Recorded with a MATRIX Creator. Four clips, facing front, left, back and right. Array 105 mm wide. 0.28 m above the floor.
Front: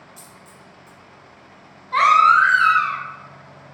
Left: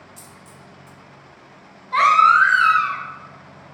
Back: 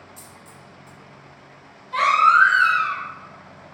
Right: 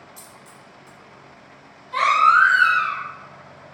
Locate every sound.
0.2 s a dropped coin: 120° left, 0.6 m
1.9 s a baby crying: 40° left, 0.6 m